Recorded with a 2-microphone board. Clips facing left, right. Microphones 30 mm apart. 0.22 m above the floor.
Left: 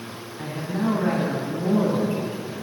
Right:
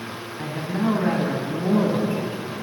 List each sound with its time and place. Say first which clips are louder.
0.4 s a man speaking: right 1 dB; 25° right (ahead or behind), 1.7 m